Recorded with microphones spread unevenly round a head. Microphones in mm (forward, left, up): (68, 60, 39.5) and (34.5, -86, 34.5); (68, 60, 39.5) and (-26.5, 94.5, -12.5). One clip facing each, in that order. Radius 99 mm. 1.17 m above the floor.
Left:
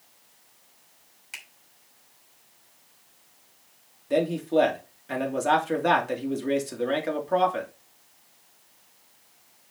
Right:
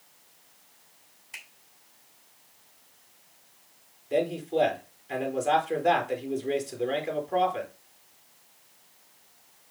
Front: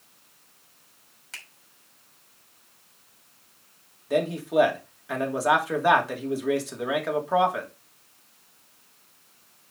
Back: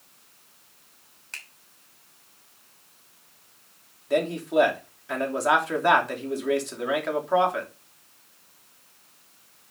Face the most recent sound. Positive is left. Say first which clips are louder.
# left 4 dB, even
turn(degrees=70)